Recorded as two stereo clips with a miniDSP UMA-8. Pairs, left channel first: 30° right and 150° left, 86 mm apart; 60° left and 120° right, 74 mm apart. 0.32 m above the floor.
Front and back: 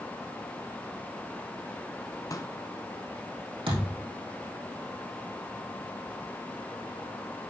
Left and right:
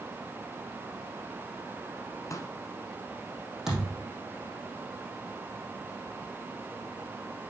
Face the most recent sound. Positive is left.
turn(degrees=155)